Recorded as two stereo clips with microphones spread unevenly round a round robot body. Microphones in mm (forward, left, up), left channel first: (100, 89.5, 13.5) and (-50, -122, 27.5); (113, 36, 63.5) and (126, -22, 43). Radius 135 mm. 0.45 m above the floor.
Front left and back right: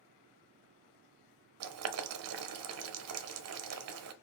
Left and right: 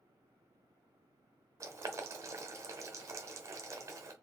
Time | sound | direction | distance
1.6 | boiling | 95° right | 0.7 m